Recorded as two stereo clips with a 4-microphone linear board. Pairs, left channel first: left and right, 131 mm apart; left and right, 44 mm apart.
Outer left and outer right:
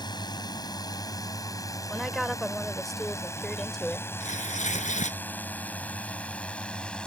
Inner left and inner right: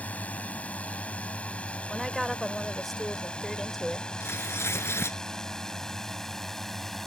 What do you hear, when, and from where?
0.0 s a drone: 35° left (ahead or behind); by 7.1 s 5° left (ahead or behind)
1.9 s a woman speaking: centre (ahead or behind)
4.2 s tearing paper: 70° left (ahead or behind)